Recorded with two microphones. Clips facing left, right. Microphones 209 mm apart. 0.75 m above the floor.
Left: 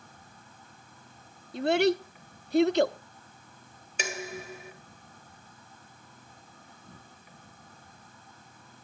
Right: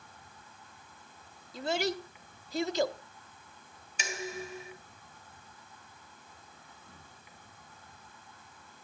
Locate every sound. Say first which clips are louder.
0.0 s an insect: left 2 dB; 50° left (ahead or behind), 4 m
1.5 s a child speaking: left 8 dB; 75° left (ahead or behind), 0.8 m
4.0 s dishes clattering: left 2 dB; 75° left (ahead or behind), 2 m